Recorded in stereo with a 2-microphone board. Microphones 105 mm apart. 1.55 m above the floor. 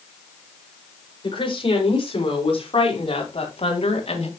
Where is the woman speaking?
55° left (ahead or behind), 6 m; by 4.3 s 80° left, 3.5 m.